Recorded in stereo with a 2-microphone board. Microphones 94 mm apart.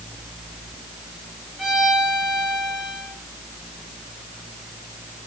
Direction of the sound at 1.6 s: 5° right (ahead or behind).